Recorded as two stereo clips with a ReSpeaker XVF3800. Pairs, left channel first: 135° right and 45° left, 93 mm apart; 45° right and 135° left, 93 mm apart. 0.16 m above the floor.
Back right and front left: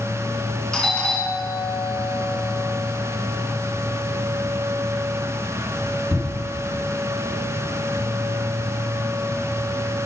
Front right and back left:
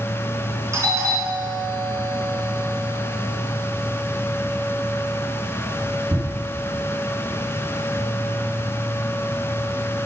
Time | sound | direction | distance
0.7 | a doorbell | 150° left | 2.5 m